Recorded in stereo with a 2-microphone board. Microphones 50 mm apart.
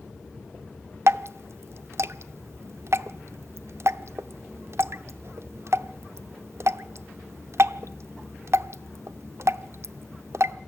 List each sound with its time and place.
1.1 s dripping: 60° right (ahead or behind), 0.6 m